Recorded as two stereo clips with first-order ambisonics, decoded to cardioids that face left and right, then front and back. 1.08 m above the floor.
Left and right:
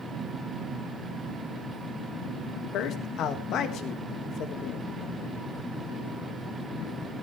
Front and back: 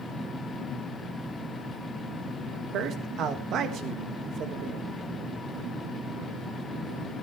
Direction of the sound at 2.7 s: 135° left.